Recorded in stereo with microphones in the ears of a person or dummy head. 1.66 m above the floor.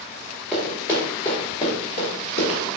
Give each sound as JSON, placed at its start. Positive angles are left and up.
{"t": 0.5, "sound": "running footsteps", "side_deg": 0, "distance_m": 2.0}